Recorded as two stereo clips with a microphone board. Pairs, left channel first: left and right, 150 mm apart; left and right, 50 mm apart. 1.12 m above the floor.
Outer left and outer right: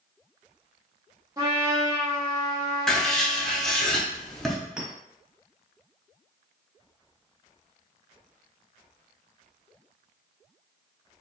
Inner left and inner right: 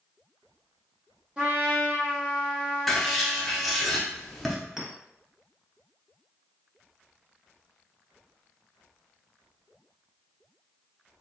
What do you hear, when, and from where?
1.4 s a trumpet: 20° right (ahead or behind), 1.3 m
2.9 s writing: 5° left (ahead or behind), 0.7 m
4.8 s a clink: 5° right (ahead or behind), 1.1 m